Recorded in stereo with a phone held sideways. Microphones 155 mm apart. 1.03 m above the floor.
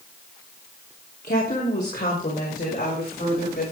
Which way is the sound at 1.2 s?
75° left (ahead or behind).